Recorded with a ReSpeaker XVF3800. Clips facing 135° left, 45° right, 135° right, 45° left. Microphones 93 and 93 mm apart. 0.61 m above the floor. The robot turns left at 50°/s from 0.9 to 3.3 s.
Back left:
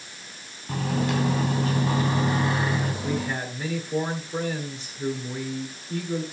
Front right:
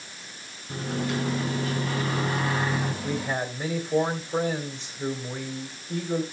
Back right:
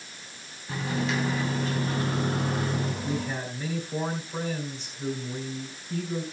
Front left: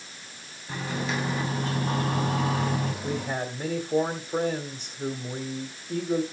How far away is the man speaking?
About 1.7 m.